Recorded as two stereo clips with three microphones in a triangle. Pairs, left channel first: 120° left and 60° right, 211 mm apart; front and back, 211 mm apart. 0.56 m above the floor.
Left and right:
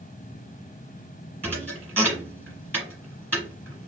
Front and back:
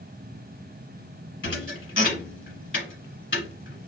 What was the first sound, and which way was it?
A thud, 20° left.